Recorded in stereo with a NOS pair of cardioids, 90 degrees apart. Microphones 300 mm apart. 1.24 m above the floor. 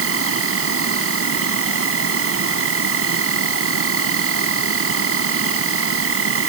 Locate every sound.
0.0 s an insect: 45° right